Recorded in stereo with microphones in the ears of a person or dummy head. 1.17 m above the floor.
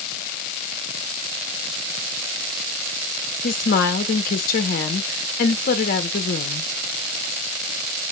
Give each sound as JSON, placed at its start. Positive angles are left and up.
{"t": 3.4, "sound": "a woman speaking", "side_deg": 50, "distance_m": 0.5}